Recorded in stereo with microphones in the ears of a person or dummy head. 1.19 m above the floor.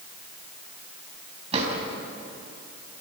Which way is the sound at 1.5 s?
35° right (ahead or behind).